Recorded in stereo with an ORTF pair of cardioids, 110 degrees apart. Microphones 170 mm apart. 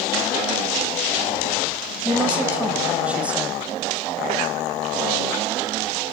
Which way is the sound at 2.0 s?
10° right.